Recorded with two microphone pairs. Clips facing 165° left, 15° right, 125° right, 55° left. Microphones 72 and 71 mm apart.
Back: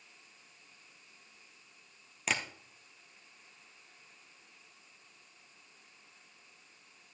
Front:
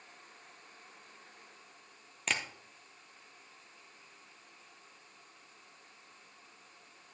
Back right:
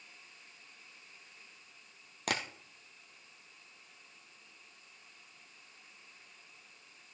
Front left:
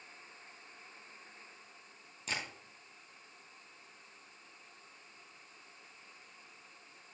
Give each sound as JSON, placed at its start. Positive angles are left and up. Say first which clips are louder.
{"t": 2.3, "sound": "tapping", "louder": "back 1 dB, back right 5 dB", "azimuth_deg": -105, "distance_m": 1.5}